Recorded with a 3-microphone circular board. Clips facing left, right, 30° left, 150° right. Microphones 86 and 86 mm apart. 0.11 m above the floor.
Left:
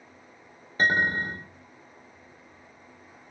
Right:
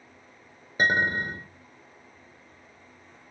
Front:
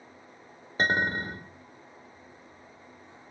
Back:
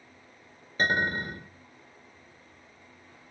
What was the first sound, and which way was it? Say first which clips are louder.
A clink: even, even; 20° right.